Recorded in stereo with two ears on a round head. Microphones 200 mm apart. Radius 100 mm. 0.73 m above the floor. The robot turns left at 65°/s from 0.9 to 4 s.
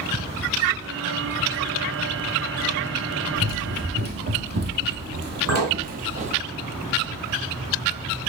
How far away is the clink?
About 3.5 m.